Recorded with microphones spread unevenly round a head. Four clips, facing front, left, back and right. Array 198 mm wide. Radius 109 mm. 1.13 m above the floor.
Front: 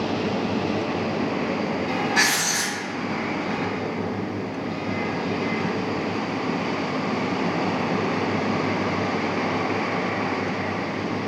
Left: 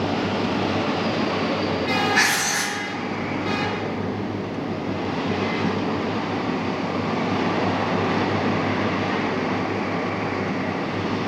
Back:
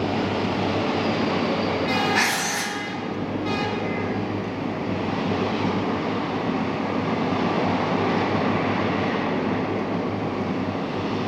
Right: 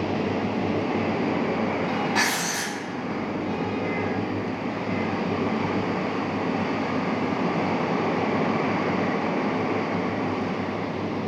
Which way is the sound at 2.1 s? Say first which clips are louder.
Left 3 dB, even; 165° right.